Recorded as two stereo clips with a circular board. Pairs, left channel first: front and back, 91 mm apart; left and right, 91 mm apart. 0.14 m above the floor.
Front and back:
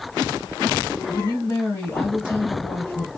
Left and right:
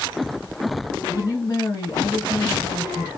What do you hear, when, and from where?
1.1 s a woman speaking: 50° left, 2.5 m